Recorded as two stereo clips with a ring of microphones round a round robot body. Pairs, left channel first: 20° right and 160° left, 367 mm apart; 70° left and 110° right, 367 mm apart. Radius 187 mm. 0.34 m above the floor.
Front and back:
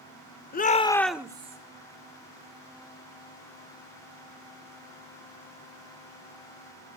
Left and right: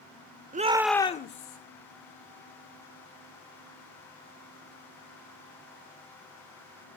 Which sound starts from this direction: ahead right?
A shout, at 0.5 s.